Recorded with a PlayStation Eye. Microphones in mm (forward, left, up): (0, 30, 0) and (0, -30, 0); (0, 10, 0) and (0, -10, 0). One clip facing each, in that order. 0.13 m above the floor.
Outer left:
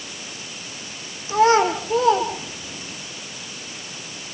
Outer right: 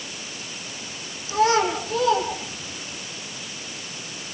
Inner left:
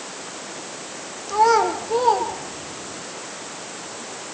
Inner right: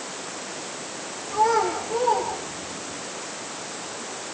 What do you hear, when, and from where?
1.3 s a child speaking: 35° left (ahead or behind), 4.5 m